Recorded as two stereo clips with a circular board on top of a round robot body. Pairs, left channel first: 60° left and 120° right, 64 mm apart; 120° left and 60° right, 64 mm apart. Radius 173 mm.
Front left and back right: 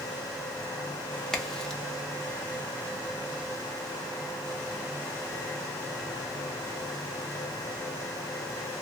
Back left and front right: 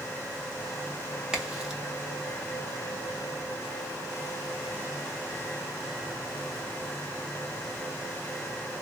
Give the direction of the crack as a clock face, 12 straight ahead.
12 o'clock.